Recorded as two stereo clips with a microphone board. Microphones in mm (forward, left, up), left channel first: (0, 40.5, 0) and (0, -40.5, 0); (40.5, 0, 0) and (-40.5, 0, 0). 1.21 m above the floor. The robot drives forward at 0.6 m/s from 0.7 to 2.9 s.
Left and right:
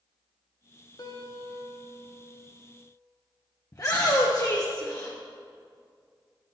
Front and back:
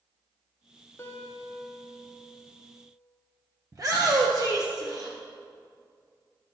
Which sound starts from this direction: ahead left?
A guitar, at 1.0 s.